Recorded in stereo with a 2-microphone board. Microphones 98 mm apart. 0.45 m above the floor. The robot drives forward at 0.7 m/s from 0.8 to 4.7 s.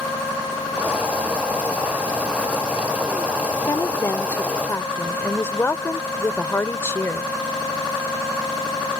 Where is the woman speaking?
35° left (ahead or behind); by 7.3 s 25° left (ahead or behind).